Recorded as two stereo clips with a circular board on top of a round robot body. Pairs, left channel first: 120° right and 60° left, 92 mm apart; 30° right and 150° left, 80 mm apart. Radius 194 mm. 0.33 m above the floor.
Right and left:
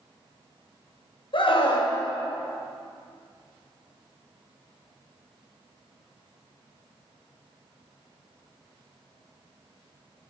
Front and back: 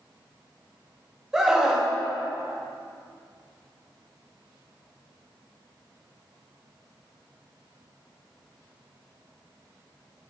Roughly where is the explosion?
No explosion in this recording.